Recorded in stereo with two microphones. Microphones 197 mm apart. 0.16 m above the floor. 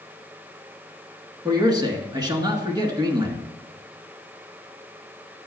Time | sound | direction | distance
1.4 | a man speaking | 20° right (ahead or behind) | 2 m